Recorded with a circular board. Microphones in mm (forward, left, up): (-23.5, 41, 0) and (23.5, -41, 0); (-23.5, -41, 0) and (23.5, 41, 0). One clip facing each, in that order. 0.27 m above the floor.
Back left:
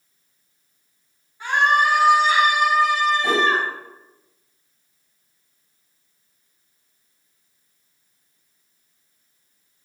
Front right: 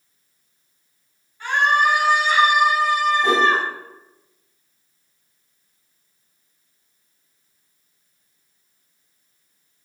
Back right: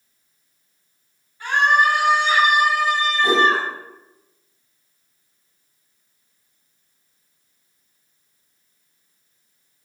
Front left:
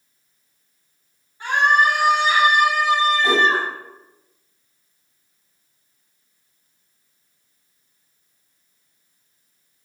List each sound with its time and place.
1.4 s a scream: 70° left, 1.6 m; by 3.7 s 125° right, 1.7 m
3.2 s a whoosh: 50° right, 1.7 m